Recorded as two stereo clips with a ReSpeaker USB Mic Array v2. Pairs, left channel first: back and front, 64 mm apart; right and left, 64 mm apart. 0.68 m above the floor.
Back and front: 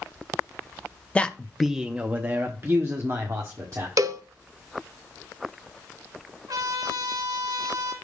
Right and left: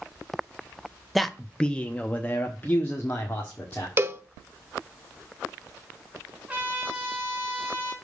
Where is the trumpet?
15° left, 3 m.